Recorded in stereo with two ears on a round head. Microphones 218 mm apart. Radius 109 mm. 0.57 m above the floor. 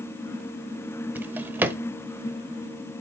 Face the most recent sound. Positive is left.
turn(degrees=-10)  # may be behind; listen again after turning